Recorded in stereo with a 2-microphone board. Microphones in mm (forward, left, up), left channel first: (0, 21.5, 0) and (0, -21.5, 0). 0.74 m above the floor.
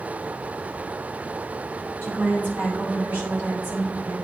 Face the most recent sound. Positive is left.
turn(degrees=-35)  # may be behind; listen again after turning